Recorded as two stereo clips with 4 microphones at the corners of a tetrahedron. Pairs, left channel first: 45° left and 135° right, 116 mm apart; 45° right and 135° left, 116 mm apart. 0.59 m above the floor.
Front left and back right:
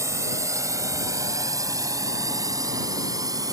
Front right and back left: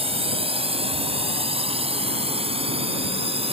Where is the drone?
160° left; by 3.5 s 165° left.